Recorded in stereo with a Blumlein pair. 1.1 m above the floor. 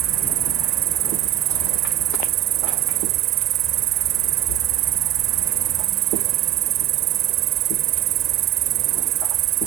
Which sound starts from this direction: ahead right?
An insect, at 0.0 s.